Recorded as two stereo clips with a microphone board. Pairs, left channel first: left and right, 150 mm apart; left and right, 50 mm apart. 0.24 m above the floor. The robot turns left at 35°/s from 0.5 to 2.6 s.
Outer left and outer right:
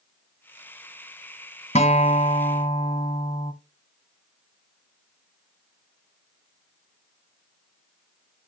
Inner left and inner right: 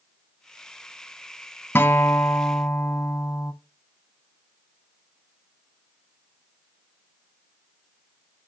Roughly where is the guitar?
Left.